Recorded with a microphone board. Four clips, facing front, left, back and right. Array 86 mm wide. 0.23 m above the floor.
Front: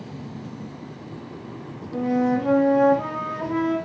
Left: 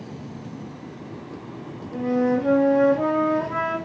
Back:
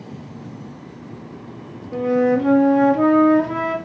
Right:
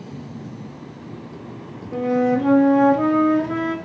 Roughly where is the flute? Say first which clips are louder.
Right 3 dB, back 4 dB; behind right.